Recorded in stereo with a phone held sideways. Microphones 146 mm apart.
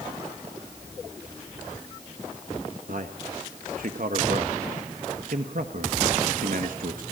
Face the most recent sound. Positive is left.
turn(degrees=-70)  # may be behind; listen again after turning